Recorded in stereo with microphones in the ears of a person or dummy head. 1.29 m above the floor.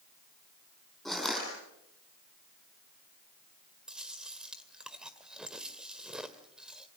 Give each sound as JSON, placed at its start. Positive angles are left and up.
{"t": 1.1, "sound": "crushing", "side_deg": -5, "distance_m": 9.5}
{"t": 3.9, "sound": "chewing", "side_deg": -10, "distance_m": 1.9}